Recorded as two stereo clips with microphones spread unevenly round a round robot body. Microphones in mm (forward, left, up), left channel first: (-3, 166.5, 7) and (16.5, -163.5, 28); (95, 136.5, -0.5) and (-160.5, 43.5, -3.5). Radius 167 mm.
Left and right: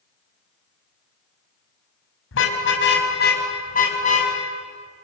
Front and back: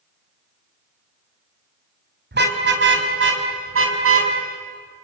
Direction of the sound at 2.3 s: 150° left.